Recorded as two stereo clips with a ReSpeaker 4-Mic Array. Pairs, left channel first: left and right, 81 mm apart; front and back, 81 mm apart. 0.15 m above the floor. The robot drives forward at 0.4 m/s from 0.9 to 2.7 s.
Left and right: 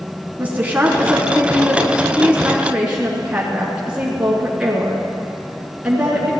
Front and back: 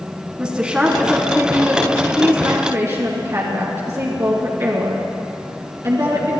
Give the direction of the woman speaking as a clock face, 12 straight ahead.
4 o'clock.